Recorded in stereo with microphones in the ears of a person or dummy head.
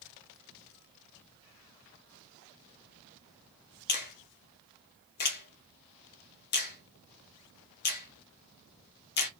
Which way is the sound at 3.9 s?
50° left (ahead or behind).